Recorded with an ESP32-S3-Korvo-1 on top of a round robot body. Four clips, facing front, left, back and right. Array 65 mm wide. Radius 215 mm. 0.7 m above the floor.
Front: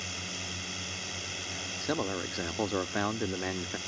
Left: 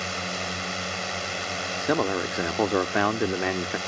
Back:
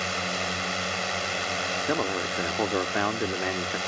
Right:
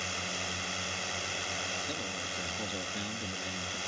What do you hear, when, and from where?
0.0 s a drone: 155° left
1.8 s a man speaking: 115° left